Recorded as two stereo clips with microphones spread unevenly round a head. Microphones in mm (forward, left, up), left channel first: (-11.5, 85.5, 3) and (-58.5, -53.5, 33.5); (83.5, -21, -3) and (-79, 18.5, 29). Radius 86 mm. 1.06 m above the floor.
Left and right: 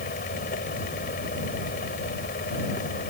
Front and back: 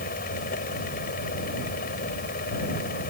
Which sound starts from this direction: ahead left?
A fan, at 0.0 s.